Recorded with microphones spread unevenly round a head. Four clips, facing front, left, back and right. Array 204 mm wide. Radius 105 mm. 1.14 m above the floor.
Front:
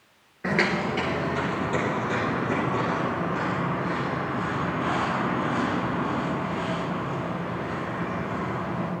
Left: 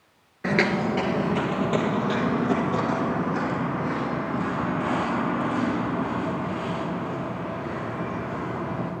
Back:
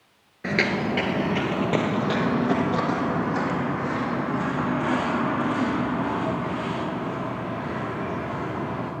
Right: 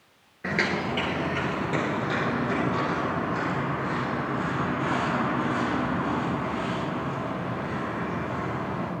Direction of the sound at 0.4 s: 95° left.